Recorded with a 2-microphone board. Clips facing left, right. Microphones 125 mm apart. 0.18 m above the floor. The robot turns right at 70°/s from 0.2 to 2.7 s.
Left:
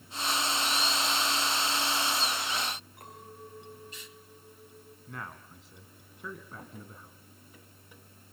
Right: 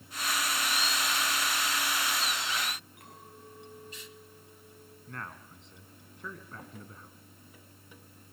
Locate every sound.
3.0 s a clink: 35° left (ahead or behind), 8.5 m
5.1 s a man speaking: 5° left (ahead or behind), 1.8 m